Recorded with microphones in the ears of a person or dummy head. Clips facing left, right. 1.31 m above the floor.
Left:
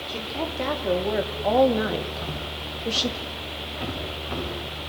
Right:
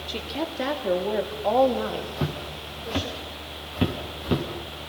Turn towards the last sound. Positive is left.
turn(degrees=-55)  # may be behind; listen again after turning